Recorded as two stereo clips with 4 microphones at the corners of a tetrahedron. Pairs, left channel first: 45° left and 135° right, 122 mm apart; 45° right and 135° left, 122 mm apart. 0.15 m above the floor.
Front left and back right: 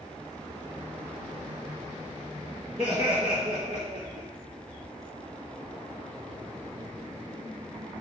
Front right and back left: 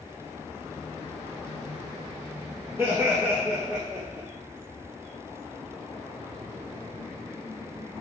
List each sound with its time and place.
2.8 s laughter: 155° right, 2.5 m; by 4.3 s 130° right, 3 m